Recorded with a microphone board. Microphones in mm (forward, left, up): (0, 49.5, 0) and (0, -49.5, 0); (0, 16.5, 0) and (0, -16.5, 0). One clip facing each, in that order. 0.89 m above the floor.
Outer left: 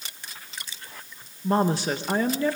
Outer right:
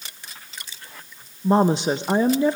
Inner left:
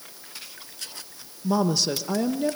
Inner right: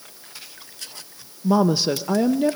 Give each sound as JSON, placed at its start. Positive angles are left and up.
{"t": 1.4, "sound": "a woman speaking", "side_deg": -20, "distance_m": 0.6}